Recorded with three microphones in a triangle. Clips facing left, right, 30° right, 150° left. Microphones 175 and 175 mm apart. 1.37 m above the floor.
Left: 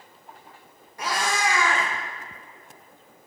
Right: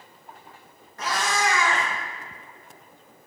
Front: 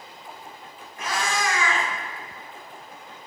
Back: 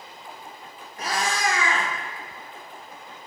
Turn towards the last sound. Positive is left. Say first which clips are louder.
# even, back 1 dB
turn(degrees=160)